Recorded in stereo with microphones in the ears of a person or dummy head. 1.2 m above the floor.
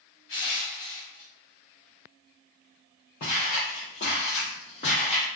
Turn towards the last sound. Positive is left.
turn(degrees=35)  # may be behind; listen again after turning